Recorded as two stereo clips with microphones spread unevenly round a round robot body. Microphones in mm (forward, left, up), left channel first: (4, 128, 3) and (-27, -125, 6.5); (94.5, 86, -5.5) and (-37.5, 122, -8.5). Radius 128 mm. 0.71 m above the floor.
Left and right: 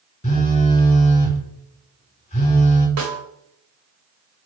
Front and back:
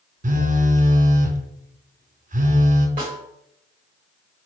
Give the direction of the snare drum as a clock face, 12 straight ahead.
4 o'clock.